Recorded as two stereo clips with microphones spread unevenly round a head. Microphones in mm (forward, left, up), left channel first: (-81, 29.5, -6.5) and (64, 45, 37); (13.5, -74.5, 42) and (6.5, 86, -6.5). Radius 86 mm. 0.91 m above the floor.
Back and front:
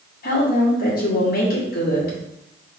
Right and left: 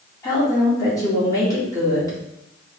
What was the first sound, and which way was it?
A woman speaking, 160° right.